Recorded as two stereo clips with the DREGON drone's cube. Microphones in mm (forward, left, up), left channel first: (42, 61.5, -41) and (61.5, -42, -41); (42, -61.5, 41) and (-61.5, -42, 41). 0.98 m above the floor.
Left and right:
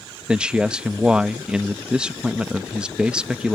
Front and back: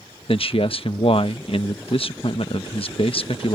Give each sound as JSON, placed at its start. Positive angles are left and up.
{"t": 0.3, "sound": "a man speaking", "azimuth_deg": 0}